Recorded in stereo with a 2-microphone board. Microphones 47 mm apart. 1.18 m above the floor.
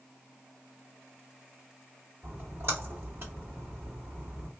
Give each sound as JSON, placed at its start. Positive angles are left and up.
{"t": 2.2, "sound": "a splash", "side_deg": -60, "distance_m": 2.5}